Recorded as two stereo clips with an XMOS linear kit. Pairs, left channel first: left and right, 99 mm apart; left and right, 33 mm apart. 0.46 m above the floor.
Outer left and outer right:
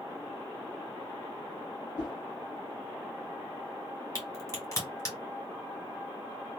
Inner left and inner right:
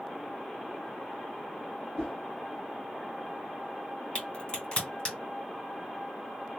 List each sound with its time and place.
2.0 s a whoosh: 25° left (ahead or behind), 1.6 m
4.2 s a crack: 35° left (ahead or behind), 1.4 m